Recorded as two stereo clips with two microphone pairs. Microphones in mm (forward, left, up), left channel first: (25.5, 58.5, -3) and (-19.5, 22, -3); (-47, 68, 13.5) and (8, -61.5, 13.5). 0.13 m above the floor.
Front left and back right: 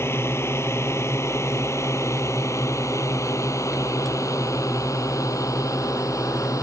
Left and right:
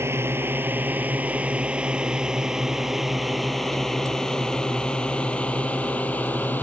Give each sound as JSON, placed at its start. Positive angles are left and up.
{"t": 0.0, "sound": "a drone", "azimuth_deg": 5}